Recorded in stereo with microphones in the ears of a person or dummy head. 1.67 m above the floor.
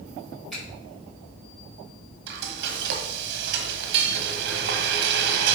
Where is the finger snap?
Centre (ahead or behind), 5 m.